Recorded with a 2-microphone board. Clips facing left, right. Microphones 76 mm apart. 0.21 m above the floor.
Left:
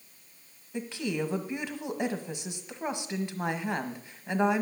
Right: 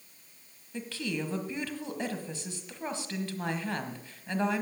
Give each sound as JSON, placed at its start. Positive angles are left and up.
{"t": 0.7, "sound": "a woman speaking", "side_deg": 20, "distance_m": 1.3}